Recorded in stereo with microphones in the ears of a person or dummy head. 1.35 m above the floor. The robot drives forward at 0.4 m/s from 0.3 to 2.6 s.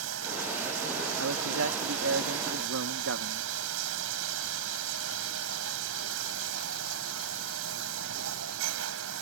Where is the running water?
85° right; by 9.2 s 80° right.